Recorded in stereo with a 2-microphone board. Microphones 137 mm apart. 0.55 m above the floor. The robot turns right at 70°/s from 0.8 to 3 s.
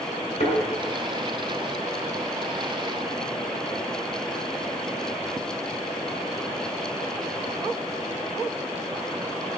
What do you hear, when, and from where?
0.4 s a thud: 60° left (ahead or behind), 3 m